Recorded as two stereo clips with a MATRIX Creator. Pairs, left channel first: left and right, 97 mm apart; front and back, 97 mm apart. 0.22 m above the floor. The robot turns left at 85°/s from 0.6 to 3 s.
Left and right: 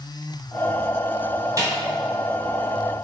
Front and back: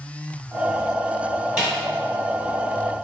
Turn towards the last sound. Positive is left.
turn(degrees=130)